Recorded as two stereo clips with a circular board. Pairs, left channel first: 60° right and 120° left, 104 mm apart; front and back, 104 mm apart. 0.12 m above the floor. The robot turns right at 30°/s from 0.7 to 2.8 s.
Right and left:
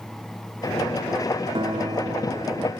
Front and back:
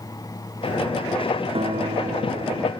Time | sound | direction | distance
1.6 | a guitar | 160° left | ?